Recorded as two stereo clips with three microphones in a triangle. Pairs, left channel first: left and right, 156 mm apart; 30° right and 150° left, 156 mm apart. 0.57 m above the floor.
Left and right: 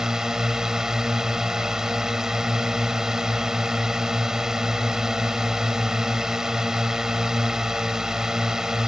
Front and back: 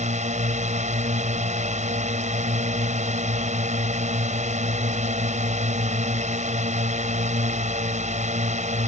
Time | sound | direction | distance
0.0 | a drone | 175° right | ?